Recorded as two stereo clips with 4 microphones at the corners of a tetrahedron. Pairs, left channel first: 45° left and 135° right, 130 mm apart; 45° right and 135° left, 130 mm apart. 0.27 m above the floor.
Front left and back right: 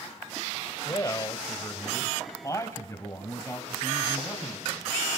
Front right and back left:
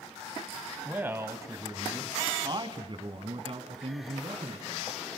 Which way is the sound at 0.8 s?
70° left.